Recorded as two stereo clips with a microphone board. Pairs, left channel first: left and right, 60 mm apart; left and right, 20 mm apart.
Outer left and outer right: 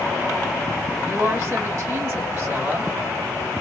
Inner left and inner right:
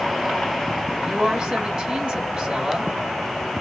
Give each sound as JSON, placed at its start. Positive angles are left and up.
{"t": 1.0, "sound": "a woman speaking", "side_deg": -45, "distance_m": 2.0}